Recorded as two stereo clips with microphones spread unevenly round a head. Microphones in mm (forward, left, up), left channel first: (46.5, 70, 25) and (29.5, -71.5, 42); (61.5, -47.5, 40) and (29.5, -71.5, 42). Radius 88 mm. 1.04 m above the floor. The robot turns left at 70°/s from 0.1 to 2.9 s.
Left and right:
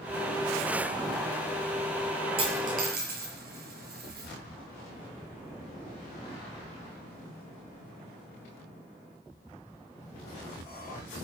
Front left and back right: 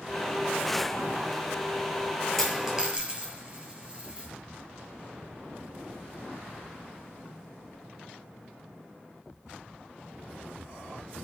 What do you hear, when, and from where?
2.4 s a dropped coin: 45° right, 6.5 m; by 4.3 s 80° right, 6.5 m